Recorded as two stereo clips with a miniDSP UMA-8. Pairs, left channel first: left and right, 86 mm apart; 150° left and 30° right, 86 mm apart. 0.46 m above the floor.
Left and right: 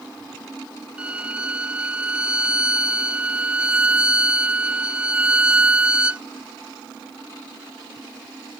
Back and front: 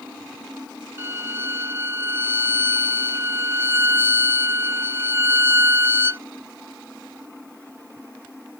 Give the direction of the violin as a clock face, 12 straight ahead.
1 o'clock.